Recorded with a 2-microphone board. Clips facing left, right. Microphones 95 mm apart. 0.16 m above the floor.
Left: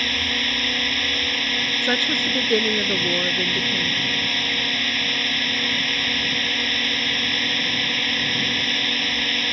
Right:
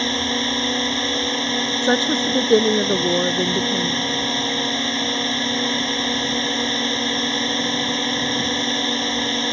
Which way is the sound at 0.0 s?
25° right (ahead or behind).